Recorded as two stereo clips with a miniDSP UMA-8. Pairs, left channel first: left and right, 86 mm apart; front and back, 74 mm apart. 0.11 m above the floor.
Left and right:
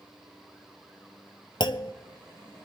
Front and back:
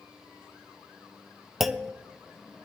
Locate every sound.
1.6 s a clunk: 90° left, 0.7 m